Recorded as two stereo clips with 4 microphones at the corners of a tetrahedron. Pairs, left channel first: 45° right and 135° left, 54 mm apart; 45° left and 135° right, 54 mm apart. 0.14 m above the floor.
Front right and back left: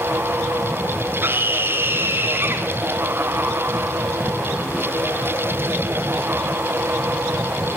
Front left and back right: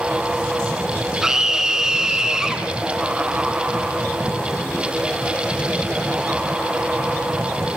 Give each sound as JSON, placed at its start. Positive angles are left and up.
{"t": 1.2, "sound": "a scream", "azimuth_deg": 150, "distance_m": 1.5}